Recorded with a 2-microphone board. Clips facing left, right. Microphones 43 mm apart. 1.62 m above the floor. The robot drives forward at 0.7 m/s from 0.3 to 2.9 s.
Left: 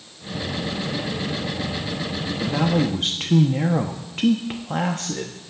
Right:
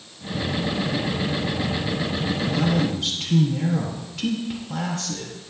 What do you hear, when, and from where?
2.4 s a man speaking: 35° left (ahead or behind), 0.8 m; by 5.3 s 40° left (ahead or behind), 0.7 m